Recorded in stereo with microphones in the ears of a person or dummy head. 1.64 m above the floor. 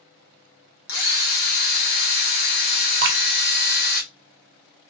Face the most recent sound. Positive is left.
turn(degrees=-60)  # may be behind; listen again after turning